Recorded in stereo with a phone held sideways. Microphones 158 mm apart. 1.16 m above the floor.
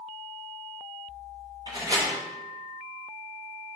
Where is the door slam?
25° right (ahead or behind), 2.5 m.